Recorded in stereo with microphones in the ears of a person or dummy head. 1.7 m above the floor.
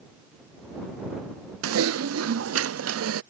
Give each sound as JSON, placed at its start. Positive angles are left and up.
{"t": 1.6, "sound": "typing on a keyboard", "side_deg": -85}